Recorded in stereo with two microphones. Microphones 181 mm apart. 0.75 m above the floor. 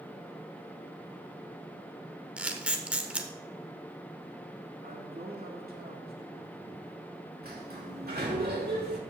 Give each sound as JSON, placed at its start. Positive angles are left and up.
{"t": 2.4, "sound": "a camera shutter", "side_deg": -5, "distance_m": 1.1}
{"t": 4.8, "sound": "a man speaking", "side_deg": -60, "distance_m": 2.0}
{"t": 7.4, "sound": "a sliding door", "side_deg": -60, "distance_m": 2.5}